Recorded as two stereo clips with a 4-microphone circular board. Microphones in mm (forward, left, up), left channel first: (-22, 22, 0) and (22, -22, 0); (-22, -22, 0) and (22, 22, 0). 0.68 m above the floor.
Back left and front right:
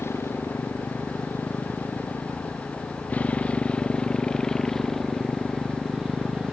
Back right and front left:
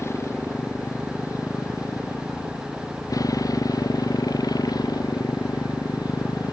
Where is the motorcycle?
Straight behind; by 6.5 s 120° right.